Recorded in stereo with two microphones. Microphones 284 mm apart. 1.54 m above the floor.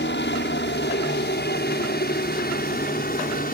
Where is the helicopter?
40° left (ahead or behind); by 3.5 s 30° left (ahead or behind).